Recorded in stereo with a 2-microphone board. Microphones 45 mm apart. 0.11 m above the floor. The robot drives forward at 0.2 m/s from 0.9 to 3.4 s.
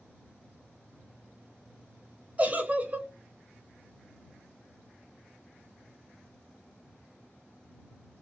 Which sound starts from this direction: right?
A giggle, at 2.4 s.